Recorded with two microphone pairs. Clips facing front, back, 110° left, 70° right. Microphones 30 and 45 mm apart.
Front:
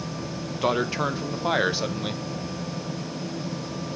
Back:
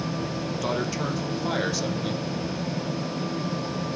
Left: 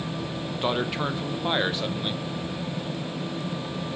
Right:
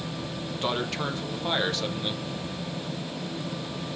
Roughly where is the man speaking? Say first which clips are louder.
Front 5 dB, left 3 dB; ahead left.